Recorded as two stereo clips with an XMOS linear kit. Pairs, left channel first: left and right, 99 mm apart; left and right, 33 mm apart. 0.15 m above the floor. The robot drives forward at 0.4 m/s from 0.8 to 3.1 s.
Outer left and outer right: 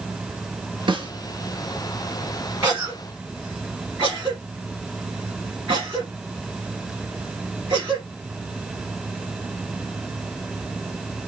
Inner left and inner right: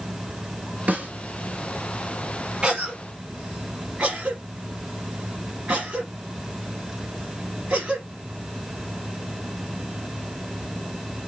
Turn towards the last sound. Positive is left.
turn(degrees=-15)  # may be behind; listen again after turning